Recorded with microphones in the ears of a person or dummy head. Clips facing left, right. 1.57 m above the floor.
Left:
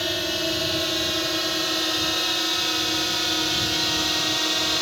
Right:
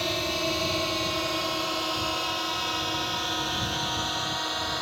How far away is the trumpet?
No trumpet in this recording.